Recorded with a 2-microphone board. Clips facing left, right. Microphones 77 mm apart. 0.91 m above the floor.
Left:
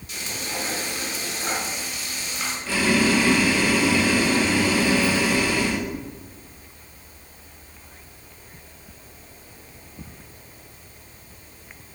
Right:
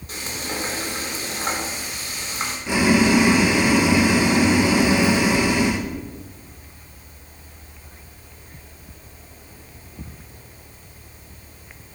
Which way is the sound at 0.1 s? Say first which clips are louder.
Right 2 dB; 45° right (ahead or behind).